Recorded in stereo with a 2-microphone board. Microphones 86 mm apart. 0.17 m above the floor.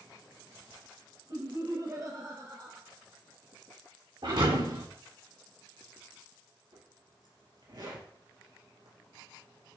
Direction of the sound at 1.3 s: 55° right (ahead or behind).